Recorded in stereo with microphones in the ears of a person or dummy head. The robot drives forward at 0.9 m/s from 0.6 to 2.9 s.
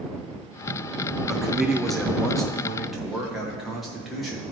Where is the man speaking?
Centre (ahead or behind), 0.7 m.